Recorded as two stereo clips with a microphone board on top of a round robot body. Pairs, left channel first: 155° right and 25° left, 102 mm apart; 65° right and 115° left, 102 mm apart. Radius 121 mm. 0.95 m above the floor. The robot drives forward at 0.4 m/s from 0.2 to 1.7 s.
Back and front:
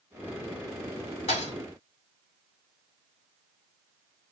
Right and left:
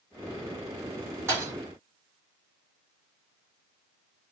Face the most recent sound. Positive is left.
turn(degrees=180)